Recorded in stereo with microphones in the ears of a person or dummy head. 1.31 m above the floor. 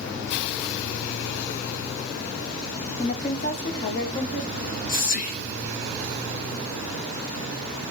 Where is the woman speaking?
25° left (ahead or behind), 0.6 m; by 4.4 s 60° left (ahead or behind), 1.3 m.